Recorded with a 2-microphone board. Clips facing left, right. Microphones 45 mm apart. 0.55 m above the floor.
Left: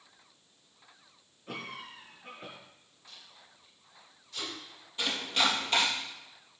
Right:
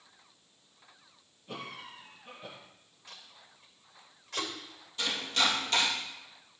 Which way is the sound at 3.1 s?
60° right (ahead or behind).